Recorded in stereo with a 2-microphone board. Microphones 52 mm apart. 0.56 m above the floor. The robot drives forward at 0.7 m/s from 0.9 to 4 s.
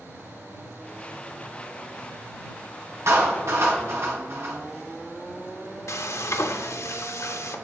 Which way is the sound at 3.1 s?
60° right (ahead or behind).